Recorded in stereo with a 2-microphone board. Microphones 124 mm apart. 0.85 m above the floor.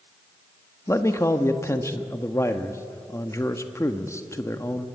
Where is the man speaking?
25° left (ahead or behind), 1.2 m.